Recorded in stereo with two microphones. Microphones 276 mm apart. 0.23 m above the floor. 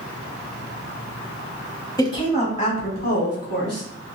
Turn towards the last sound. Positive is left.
turn(degrees=45)  # may be behind; listen again after turning